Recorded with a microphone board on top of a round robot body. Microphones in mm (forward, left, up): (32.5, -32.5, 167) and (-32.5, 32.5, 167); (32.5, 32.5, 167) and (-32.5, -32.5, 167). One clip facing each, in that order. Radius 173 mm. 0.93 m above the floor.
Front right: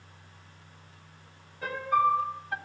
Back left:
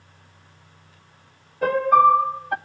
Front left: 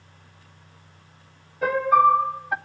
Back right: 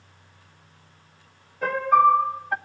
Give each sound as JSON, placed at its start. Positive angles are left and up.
{"t": 1.6, "sound": "a piano", "azimuth_deg": 130, "distance_m": 0.8}